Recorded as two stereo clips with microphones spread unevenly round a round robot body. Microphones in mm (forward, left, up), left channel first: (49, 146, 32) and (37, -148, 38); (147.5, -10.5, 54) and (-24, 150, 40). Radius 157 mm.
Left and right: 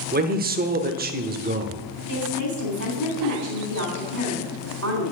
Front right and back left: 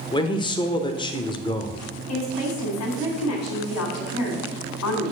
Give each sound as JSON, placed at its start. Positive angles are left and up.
{"t": 0.1, "sound": "a man speaking", "azimuth_deg": -100, "distance_m": 0.9}
{"t": 2.1, "sound": "a woman speaking", "azimuth_deg": -50, "distance_m": 3.0}